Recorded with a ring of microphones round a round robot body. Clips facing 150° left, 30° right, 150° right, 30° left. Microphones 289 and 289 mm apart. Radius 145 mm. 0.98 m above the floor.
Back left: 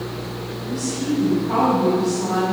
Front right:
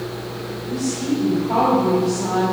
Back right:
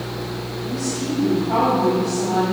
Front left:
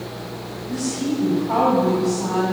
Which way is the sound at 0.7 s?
75° left.